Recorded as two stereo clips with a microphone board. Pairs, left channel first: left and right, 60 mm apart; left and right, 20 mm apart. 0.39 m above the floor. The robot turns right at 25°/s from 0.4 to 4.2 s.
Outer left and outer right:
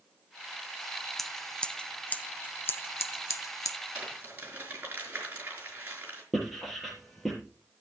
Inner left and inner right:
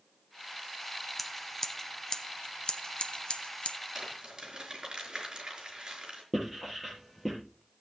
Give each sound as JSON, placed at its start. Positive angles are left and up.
{"t": 1.2, "sound": "scissors", "side_deg": 5, "distance_m": 0.6}
{"t": 4.0, "sound": "crumpling", "side_deg": -25, "distance_m": 4.5}
{"t": 6.3, "sound": "writing", "side_deg": 0, "distance_m": 5.5}